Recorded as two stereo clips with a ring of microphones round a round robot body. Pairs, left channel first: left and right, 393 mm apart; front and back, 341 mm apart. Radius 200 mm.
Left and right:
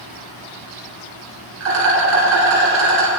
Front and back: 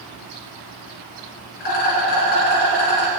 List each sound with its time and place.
1.6 s a rattle: 30° right, 3 m